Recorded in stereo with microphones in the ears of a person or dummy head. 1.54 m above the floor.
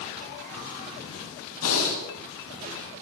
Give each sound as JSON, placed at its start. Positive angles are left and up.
{"t": 1.6, "sound": "breathing", "side_deg": 85, "distance_m": 10.0}